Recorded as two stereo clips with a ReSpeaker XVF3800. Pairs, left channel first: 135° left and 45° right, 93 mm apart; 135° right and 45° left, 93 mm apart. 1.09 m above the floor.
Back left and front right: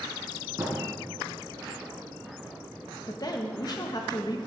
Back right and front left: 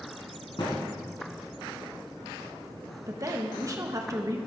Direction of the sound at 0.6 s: 105° right.